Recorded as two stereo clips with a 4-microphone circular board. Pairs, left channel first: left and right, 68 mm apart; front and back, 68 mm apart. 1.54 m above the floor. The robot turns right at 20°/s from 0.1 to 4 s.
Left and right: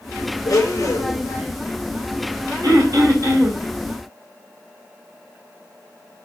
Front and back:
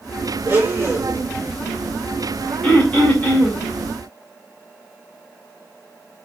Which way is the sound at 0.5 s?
120° left.